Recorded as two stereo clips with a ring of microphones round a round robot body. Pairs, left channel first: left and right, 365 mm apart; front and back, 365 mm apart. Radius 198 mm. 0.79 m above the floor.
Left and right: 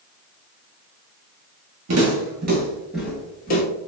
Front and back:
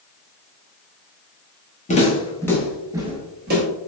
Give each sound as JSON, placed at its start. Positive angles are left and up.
{"t": 1.9, "sound": "footsteps", "azimuth_deg": -65, "distance_m": 1.0}